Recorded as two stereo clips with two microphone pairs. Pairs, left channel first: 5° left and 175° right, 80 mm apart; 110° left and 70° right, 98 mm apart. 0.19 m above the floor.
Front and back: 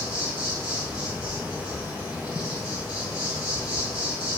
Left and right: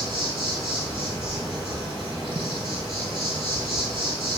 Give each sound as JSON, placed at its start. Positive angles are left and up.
{"t": 0.0, "sound": "an insect", "azimuth_deg": -95, "distance_m": 1.5}